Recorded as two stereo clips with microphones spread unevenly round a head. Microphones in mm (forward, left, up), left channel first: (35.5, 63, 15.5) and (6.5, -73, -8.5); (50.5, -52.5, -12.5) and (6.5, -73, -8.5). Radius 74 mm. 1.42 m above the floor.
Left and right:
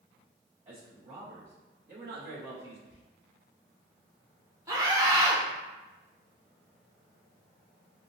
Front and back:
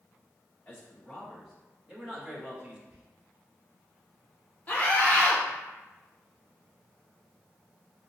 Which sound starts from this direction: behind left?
Whispering, at 2.9 s.